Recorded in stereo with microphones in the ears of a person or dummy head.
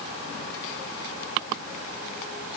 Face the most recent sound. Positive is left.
No sound to turn to.